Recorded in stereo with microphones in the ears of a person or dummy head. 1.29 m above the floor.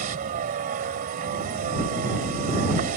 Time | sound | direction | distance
0.0 | a vehicle | 40° right (ahead or behind) | ?